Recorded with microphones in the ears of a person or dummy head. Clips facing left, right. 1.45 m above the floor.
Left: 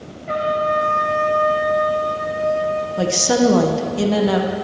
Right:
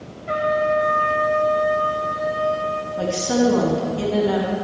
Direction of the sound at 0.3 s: 5° right (ahead or behind).